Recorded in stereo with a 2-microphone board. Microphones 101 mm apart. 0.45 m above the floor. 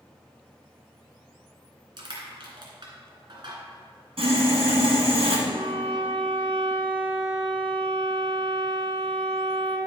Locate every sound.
2.0 s crushing: 50° right (ahead or behind), 2 m
4.2 s sawing: 75° right (ahead or behind), 2 m
5.5 s a violin: 50° right (ahead or behind), 1.8 m